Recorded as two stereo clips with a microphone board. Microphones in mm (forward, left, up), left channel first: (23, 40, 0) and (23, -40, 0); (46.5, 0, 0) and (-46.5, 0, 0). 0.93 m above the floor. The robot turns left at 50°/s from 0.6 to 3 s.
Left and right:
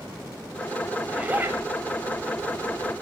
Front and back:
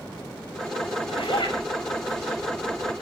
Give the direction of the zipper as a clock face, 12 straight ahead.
12 o'clock.